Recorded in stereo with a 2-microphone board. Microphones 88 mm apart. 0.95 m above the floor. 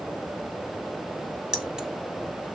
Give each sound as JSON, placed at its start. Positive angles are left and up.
{"t": 1.5, "sound": "keys jangling", "side_deg": -10, "distance_m": 1.2}